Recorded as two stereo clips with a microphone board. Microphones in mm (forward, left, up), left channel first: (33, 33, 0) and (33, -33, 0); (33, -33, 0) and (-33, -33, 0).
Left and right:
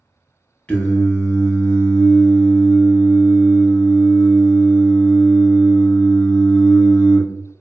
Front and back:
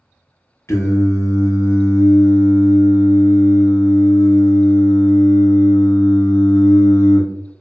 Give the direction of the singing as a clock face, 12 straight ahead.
11 o'clock.